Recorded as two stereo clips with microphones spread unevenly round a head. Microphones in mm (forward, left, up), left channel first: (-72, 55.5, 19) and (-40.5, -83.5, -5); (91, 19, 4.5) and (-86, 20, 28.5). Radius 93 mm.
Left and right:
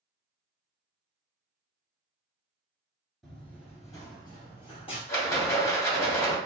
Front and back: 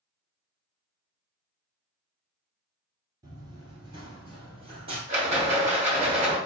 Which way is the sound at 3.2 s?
170° left.